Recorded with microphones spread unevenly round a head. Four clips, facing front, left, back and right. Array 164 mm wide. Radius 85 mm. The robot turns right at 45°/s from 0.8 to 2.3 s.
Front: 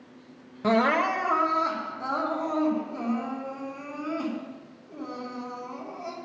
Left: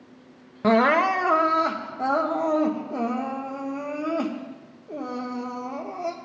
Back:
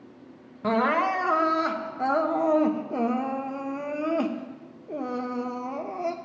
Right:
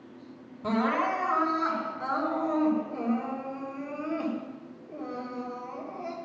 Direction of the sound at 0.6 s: 75° left.